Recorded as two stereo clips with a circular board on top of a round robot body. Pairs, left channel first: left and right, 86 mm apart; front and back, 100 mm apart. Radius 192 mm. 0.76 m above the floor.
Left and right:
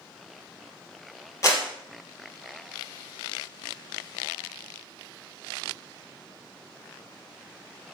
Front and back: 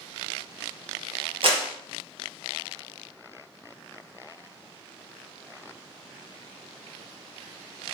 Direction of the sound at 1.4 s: 150° left.